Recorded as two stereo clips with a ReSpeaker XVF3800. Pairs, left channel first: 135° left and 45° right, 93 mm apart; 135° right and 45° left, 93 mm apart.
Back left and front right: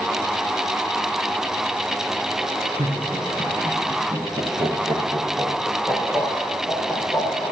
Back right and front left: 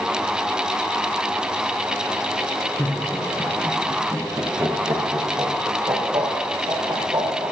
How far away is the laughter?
About 4 m.